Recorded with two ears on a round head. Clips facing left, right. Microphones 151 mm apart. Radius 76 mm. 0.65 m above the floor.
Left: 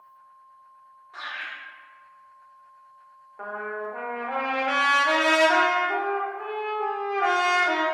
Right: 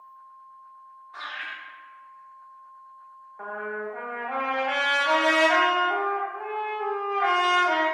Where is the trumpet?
40° left (ahead or behind), 0.7 m.